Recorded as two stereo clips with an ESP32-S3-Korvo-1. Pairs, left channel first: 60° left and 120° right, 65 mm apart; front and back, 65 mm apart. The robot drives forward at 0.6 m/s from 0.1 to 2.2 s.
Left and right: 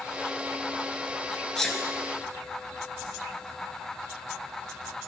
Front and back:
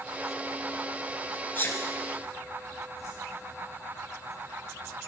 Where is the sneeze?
20° right, 1.4 m; by 1.8 s 25° right, 1.3 m.